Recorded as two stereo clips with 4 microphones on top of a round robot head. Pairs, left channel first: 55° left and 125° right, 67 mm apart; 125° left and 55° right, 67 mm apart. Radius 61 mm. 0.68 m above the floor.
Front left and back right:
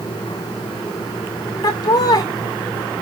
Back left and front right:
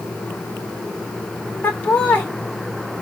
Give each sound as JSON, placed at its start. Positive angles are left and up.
{"t": 1.6, "sound": "laughter", "azimuth_deg": 60, "distance_m": 1.4}